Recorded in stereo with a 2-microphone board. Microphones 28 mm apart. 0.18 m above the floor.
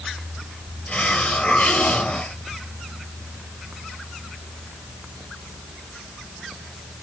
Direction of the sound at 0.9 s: 45° left (ahead or behind).